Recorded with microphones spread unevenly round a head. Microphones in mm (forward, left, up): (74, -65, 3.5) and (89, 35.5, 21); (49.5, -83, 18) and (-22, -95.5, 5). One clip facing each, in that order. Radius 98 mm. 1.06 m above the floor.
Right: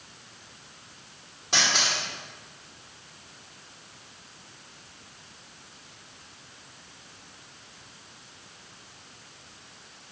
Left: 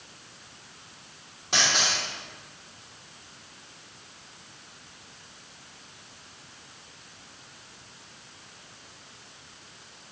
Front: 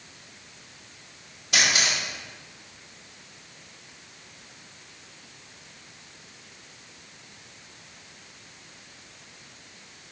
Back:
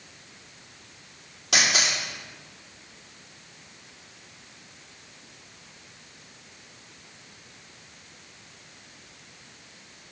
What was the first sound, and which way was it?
A camera shutter, 170° left.